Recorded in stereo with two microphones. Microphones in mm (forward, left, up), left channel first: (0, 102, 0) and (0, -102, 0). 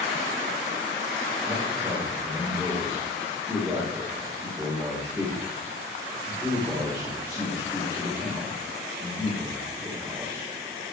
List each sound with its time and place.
1.4 s a man speaking: 10° right (ahead or behind), 6 m